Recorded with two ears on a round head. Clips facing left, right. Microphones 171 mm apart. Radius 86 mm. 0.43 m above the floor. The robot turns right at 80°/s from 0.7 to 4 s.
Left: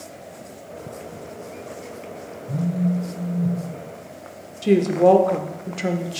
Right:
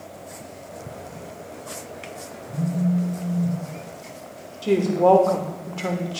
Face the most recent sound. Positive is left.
turn(degrees=20)  # may be behind; listen again after turning